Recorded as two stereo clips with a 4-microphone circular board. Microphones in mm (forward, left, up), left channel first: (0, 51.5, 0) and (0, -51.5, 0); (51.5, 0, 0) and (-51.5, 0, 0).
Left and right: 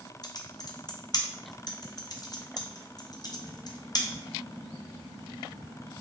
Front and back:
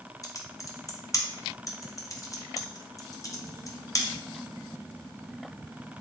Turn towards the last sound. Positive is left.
turn(degrees=50)